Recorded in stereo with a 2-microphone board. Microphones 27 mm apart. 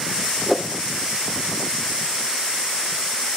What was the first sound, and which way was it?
A whoosh, 5° left (ahead or behind).